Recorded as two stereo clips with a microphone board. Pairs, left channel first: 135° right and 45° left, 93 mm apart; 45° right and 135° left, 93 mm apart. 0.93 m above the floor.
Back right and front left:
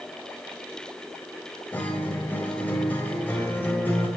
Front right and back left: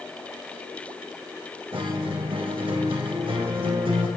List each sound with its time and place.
1.7 s a guitar: 155° left, 2 m